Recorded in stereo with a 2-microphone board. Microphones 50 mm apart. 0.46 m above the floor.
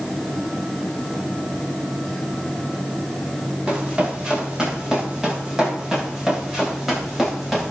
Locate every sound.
3.7 s running footsteps: 20° right (ahead or behind), 9 m; by 7.7 s centre (ahead or behind), 6.5 m